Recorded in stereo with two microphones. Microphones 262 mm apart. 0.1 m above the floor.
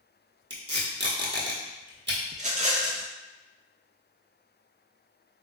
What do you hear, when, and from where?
0.5 s tape being pulled: 45° right (ahead or behind), 1.0 m
2.3 s a rattle: 30° right (ahead or behind), 0.5 m